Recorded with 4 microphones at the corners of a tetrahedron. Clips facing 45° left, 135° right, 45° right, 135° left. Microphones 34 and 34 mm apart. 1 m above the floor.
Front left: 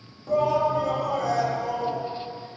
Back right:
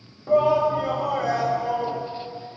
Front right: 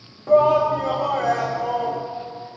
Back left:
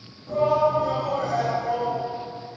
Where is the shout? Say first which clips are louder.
Back right 3 dB, front right 5 dB; 70° right, 1.2 m.